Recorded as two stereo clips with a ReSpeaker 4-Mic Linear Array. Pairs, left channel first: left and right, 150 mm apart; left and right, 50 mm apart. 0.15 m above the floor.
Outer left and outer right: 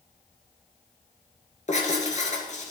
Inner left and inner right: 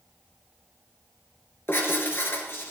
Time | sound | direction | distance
1.7 | writing | 55° left (ahead or behind) | 2.5 m